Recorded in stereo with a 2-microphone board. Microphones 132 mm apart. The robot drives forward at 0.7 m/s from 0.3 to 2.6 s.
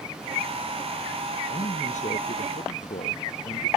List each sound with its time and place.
1.5 s a man speaking: 70° left (ahead or behind); by 3.7 s 75° left (ahead or behind)